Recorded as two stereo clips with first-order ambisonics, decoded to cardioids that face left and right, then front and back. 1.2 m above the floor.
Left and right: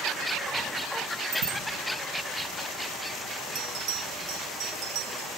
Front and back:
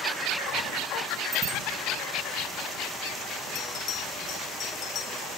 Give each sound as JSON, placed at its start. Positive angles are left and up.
{"t": 1.3, "sound": "a bicycle bell", "azimuth_deg": -100, "distance_m": 5.0}
{"t": 3.5, "sound": "a bell", "azimuth_deg": -55, "distance_m": 1.6}